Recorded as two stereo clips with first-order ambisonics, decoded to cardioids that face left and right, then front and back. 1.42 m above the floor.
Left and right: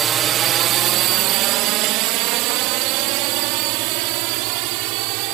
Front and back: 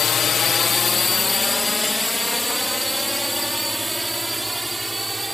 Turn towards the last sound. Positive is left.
turn(degrees=-95)